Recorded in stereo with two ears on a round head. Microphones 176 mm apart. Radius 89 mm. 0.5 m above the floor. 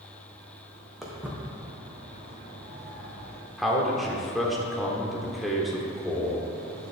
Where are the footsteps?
Centre (ahead or behind), 1.7 m; by 3.4 s 60° right (ahead or behind), 2.5 m.